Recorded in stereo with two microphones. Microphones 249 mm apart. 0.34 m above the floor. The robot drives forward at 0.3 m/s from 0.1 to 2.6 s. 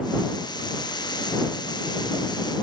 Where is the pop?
I don't hear a pop.